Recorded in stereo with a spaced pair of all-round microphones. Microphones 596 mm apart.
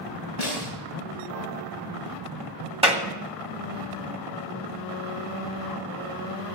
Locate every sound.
0.4 s a snare drum: 75° left (ahead or behind), 5 m
2.8 s a clap: 10° right (ahead or behind), 1.8 m